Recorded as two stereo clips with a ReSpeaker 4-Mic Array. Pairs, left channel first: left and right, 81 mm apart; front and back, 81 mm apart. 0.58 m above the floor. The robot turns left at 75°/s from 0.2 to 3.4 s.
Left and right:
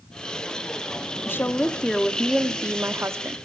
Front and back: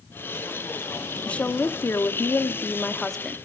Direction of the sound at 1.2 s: 65° left.